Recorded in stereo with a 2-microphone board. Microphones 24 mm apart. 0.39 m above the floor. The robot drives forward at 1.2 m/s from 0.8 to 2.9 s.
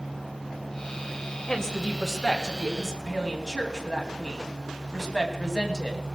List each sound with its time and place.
1.5 s a woman speaking: 25° left (ahead or behind), 2 m; by 6.0 s 15° left (ahead or behind), 3.5 m